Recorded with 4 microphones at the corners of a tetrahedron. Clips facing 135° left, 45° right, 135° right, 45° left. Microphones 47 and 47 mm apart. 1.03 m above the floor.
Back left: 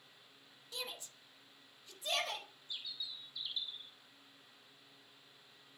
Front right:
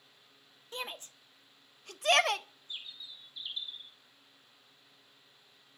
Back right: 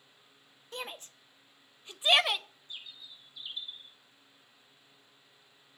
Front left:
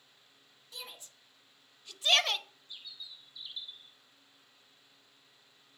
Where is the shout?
95° right, 1.6 m; by 2.5 s 55° right, 1.1 m.